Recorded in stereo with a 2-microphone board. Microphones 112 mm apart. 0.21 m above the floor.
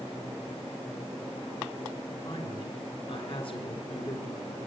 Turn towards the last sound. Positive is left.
turn(degrees=50)  # may be behind; listen again after turning